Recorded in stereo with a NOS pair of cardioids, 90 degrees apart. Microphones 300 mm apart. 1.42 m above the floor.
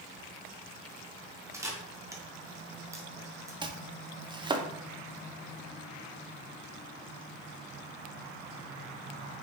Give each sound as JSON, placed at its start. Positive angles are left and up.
{"t": 1.5, "sound": "a camera shutter", "azimuth_deg": -10, "distance_m": 1.2}
{"t": 3.6, "sound": "chopping", "azimuth_deg": -15, "distance_m": 0.6}